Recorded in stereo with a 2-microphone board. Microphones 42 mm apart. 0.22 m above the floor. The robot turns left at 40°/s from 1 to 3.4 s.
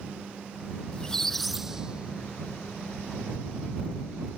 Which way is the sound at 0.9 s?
15° left.